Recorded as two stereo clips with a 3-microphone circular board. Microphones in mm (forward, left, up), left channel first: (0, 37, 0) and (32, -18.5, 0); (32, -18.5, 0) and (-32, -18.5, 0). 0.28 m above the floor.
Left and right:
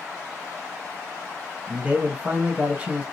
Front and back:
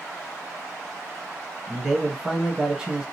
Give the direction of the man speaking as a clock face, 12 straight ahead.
4 o'clock.